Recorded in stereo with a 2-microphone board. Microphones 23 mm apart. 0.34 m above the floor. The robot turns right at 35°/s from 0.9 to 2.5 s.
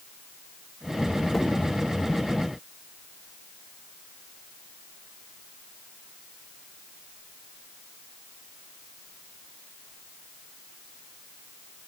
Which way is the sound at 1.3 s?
10° left (ahead or behind).